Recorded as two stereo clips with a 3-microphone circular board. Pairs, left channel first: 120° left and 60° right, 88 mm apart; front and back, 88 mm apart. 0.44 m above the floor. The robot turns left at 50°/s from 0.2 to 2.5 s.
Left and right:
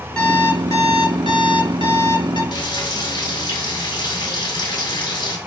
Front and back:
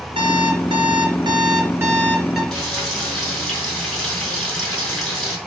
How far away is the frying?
About 4 m.